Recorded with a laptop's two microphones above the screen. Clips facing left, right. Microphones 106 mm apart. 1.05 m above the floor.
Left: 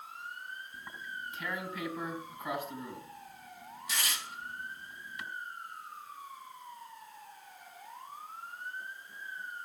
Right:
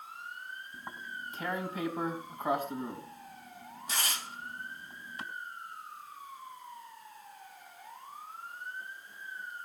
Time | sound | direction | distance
0.7 | tearing paper | 40° right (ahead or behind) | 3.5 m